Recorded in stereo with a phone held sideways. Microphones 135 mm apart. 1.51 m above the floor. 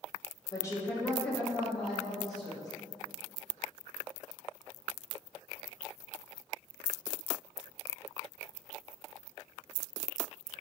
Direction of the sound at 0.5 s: 25° left (ahead or behind).